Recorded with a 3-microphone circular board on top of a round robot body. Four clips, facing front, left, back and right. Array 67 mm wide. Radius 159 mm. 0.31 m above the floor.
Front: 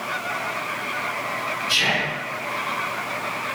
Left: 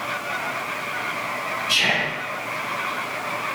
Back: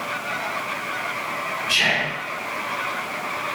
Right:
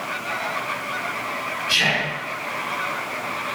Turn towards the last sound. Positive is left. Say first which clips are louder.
# right 1 dB, back 2 dB
turn(degrees=-135)